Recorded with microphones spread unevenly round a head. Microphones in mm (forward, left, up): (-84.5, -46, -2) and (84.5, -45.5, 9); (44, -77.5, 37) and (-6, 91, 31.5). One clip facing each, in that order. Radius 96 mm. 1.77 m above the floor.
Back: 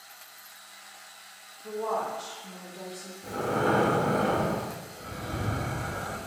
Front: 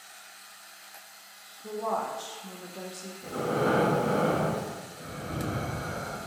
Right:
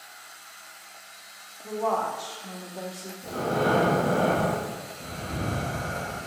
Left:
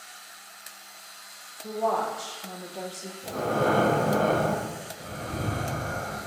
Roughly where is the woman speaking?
Ahead left.